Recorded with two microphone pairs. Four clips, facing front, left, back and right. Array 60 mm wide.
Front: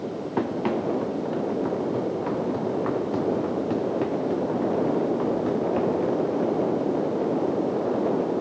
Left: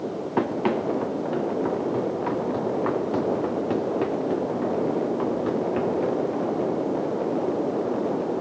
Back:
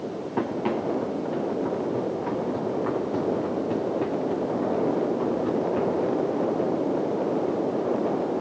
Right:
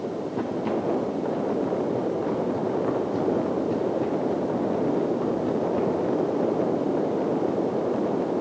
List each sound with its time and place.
0.4 s running footsteps: 70° left, 3.5 m; by 6.5 s 60° left, 6.5 m